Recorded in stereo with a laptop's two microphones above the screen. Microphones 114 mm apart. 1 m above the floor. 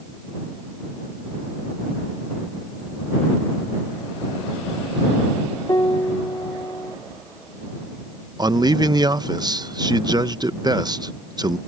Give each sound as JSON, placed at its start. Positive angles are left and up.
{"t": 5.7, "sound": "a piano", "side_deg": 30}
{"t": 8.4, "sound": "a man speaking", "side_deg": -35}